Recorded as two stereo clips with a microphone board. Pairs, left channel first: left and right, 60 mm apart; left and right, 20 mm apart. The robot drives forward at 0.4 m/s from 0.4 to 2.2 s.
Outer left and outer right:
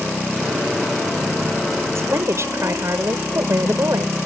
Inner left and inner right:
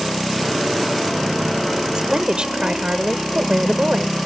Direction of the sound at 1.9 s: 50° right (ahead or behind).